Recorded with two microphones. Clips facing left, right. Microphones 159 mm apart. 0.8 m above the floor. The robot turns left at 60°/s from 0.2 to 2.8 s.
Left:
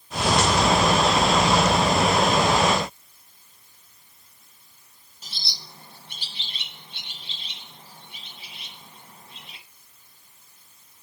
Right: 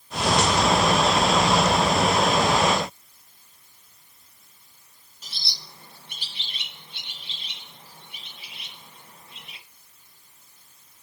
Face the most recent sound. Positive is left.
turn(degrees=30)  # may be behind; listen again after turning